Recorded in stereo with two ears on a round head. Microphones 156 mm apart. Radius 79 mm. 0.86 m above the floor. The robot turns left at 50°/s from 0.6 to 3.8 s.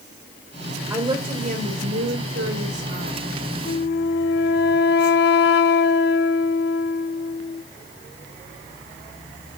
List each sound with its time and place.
0.9 s a woman speaking: 15° right, 3 m; by 3.2 s 130° right, 3 m
3.6 s a flute: 65° left (ahead or behind), 0.7 m; by 7.6 s 60° left (ahead or behind), 0.7 m